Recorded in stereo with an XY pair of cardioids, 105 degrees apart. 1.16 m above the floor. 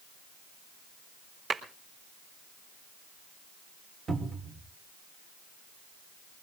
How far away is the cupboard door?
About 3 m.